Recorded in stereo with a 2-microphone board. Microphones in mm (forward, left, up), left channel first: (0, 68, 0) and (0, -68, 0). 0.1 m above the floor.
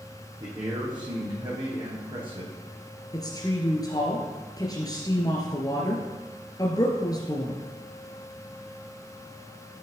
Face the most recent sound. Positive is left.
turn(degrees=30)  # may be behind; listen again after turning